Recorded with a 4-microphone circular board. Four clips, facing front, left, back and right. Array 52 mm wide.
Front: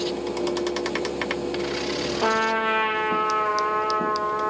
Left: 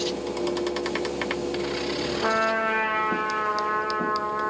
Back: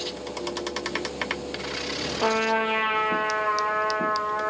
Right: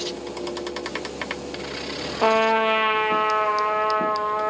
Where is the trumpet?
90° right, 3.5 m.